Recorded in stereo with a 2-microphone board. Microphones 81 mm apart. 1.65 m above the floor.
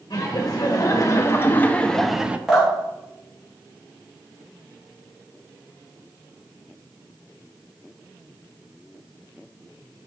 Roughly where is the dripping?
Centre.